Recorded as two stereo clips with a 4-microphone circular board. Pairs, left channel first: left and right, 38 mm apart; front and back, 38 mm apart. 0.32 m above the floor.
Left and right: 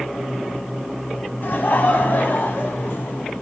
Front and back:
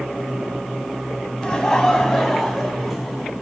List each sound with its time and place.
1.4 s laughter: 70° left, 3 m; by 3.3 s 90° left, 3.5 m